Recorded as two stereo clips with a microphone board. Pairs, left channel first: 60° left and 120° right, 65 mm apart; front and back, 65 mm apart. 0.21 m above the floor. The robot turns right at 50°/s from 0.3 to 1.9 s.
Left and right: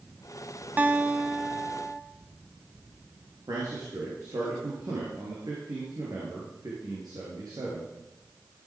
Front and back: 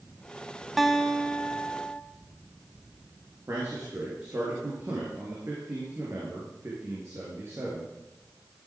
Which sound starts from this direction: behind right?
A man speaking, at 3.5 s.